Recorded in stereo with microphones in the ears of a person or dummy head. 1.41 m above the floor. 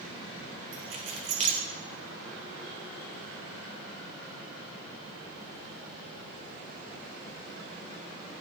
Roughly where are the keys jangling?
Right.